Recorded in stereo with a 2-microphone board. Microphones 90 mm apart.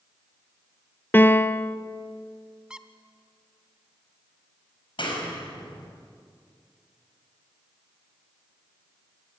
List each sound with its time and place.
1.1 s a piano: 25° left (ahead or behind), 0.6 m
2.7 s a squeak: 10° right (ahead or behind), 0.8 m
5.0 s a clap: 65° left (ahead or behind), 5 m